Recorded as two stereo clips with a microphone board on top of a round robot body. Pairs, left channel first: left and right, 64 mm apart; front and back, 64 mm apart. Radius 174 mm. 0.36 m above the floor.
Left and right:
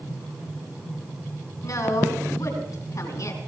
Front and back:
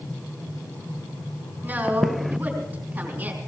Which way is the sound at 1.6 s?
115° left.